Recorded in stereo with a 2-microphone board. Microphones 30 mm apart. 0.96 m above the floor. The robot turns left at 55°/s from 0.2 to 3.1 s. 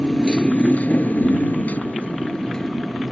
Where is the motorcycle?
155° left; by 3.1 s 5° right.